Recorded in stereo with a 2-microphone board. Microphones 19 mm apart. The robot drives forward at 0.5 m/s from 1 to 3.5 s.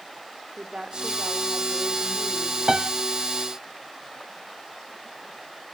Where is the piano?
30° right (ahead or behind), 0.5 m.